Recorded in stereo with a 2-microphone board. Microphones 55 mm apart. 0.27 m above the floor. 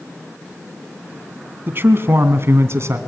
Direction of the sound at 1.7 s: 40° right (ahead or behind).